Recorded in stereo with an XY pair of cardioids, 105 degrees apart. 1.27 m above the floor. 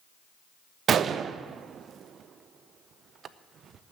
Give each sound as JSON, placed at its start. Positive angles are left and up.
{"t": 0.9, "sound": "a gunshot", "azimuth_deg": -55, "distance_m": 0.6}